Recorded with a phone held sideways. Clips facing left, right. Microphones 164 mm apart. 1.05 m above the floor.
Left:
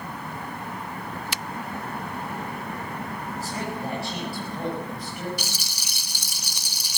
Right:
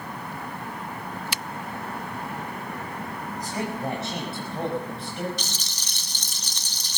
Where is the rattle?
10° left (ahead or behind), 0.9 m.